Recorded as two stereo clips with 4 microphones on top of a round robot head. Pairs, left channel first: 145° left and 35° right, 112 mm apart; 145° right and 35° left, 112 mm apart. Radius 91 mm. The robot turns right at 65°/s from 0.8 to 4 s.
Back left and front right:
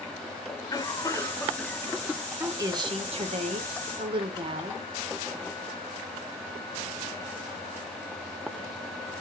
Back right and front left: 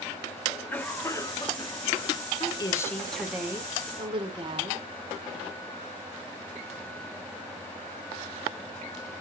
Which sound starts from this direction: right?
A woman speaking, at 2.4 s.